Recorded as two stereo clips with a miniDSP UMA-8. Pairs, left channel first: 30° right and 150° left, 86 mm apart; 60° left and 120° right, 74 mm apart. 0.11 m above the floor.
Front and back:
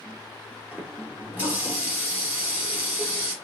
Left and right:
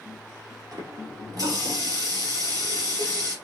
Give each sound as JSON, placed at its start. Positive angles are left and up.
{"t": 0.7, "sound": "a running tap", "azimuth_deg": -140, "distance_m": 1.8}